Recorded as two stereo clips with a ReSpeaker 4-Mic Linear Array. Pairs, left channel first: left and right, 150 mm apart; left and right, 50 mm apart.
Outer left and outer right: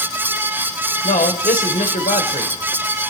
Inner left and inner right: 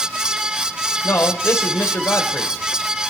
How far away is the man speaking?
About 1.1 m.